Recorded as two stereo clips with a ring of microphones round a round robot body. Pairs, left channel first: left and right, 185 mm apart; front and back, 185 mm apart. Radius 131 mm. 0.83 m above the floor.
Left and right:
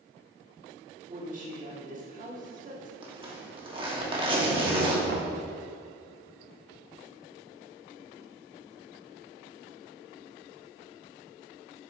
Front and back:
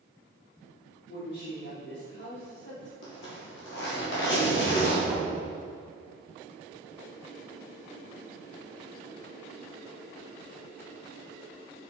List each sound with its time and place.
1.1 s a woman speaking: 45° right, 1.9 m
3.0 s a zipper: 30° right, 1.7 m
5.1 s knocking: 90° right, 0.7 m